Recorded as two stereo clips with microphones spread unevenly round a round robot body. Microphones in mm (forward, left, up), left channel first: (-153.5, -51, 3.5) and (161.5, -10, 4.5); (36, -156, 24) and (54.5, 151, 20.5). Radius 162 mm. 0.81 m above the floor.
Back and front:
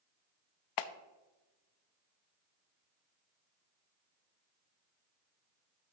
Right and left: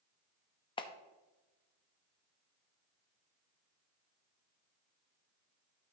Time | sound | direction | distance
0.8 | a clap | 165° right | 0.6 m